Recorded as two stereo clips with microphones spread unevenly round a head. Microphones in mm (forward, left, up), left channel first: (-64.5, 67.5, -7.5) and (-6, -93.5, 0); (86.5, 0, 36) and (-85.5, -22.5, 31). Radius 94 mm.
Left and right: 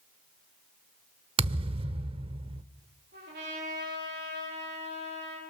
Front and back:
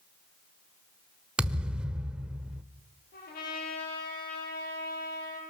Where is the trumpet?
30° right, 9.5 m.